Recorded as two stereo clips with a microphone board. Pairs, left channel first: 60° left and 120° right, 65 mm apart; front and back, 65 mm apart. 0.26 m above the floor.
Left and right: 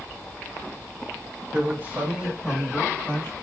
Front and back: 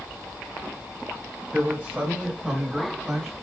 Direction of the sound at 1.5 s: 125° right.